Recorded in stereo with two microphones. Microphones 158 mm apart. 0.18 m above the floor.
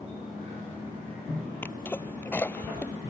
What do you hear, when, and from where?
1.6 s a sneeze: 10° left (ahead or behind)